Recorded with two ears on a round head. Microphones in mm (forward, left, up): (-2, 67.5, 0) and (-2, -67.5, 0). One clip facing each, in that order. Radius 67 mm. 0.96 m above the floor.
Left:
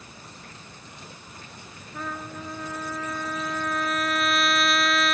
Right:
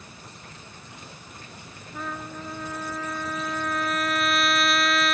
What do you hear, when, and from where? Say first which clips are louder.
1.9 s a trumpet: even; centre (ahead or behind)